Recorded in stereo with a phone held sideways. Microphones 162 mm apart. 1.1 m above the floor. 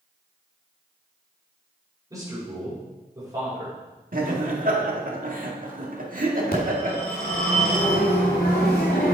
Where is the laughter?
60° right (ahead or behind), 2 m.